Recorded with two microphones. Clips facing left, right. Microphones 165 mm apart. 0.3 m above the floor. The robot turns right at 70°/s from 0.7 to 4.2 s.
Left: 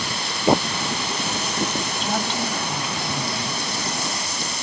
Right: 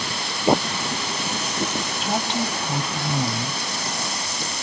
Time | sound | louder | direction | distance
2.0 | a woman speaking | right 2 dB | 175° right | 1.4 m